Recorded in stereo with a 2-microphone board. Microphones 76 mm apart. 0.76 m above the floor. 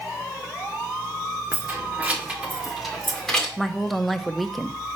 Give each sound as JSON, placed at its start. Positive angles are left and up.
{"t": 1.5, "sound": "keys jangling", "side_deg": -25, "distance_m": 1.7}
{"t": 3.6, "sound": "a woman speaking", "side_deg": 0, "distance_m": 0.6}